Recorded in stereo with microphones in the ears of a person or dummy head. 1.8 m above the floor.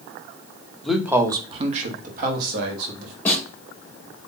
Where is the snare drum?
10° left (ahead or behind), 1.5 m.